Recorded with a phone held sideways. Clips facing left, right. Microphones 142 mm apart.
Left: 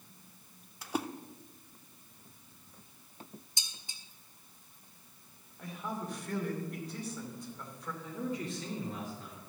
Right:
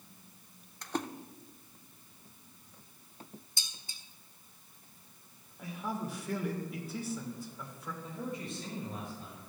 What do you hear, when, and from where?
0.8 s a splash: 5° left (ahead or behind), 0.5 m
3.6 s dishes clattering: 20° left (ahead or behind), 1.2 m
5.6 s a man speaking: 5° right (ahead or behind), 2.5 m
8.0 s a man speaking: 75° left (ahead or behind), 3 m